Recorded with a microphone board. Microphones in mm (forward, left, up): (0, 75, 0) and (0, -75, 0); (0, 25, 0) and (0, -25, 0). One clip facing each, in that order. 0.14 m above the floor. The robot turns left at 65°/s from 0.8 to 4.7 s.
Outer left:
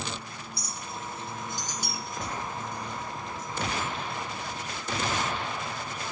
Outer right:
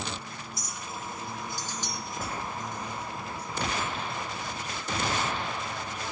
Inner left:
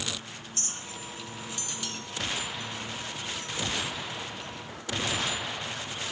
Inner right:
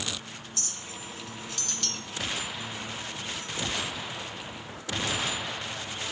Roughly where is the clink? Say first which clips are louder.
Outer left 1 dB, inner left 1 dB; left.